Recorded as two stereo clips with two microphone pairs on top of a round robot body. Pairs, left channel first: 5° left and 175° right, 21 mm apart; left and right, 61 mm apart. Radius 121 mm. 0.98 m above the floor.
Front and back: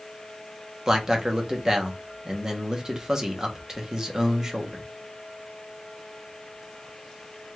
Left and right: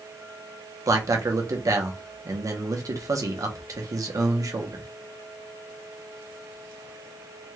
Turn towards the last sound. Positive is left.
turn(degrees=-110)